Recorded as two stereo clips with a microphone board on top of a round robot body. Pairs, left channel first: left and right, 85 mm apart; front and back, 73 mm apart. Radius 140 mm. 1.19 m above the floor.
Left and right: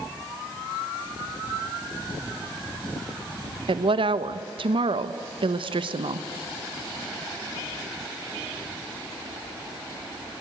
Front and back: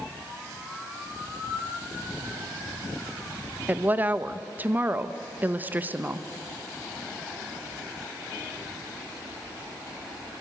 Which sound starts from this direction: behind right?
A woman speaking, at 3.7 s.